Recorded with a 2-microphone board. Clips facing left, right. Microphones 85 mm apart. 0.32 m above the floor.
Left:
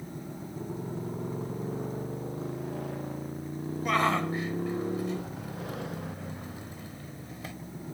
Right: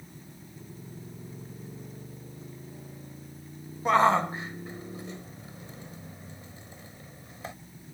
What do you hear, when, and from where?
0.0 s a motorcycle: 80° left
3.9 s a shout: 30° right (ahead or behind)